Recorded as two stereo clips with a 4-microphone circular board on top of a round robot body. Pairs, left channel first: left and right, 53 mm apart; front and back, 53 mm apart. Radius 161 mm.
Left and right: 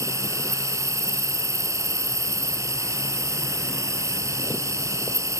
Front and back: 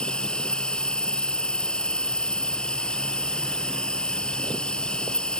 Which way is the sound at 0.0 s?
75° right.